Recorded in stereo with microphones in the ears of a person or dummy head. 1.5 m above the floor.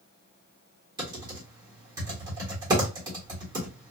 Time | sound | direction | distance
1.0 | typing on a keyboard | 20° right (ahead or behind) | 1.0 m